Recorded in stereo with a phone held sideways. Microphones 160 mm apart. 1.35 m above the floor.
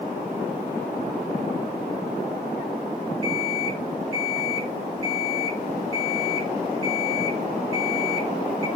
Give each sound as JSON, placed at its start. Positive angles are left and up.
{"t": 3.2, "sound": "an alarm clock", "side_deg": -35, "distance_m": 6.0}